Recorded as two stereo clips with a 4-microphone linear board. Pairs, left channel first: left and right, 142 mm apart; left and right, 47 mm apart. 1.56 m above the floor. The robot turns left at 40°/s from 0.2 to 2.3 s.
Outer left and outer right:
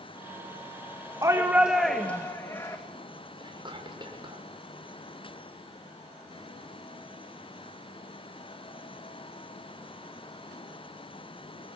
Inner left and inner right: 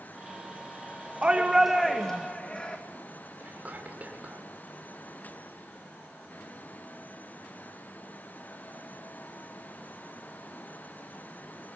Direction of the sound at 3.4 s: 35° right (ahead or behind).